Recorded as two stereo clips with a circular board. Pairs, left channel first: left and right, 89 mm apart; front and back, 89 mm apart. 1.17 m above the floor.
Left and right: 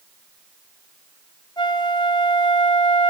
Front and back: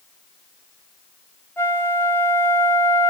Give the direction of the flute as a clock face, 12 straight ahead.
10 o'clock.